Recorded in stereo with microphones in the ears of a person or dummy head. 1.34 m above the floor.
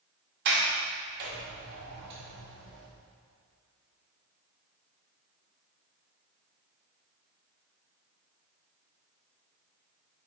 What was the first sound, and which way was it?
A sliding door, 55° right (ahead or behind).